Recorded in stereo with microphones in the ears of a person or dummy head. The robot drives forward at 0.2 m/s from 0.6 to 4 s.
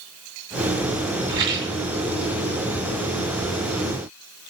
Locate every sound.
1.3 s a rattle: 15° right (ahead or behind), 1.0 m